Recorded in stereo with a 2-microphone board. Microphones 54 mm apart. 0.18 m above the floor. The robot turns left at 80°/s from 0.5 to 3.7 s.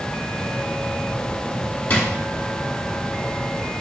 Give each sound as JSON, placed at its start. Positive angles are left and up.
{"t": 1.9, "sound": "a drawer", "side_deg": 30, "distance_m": 1.0}